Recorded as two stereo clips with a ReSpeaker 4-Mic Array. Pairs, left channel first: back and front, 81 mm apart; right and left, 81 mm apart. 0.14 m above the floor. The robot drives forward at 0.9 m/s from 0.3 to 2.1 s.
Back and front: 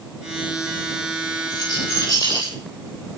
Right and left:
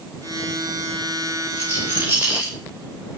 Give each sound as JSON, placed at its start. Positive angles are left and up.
{"t": 1.5, "sound": "a rattle", "azimuth_deg": 155, "distance_m": 8.0}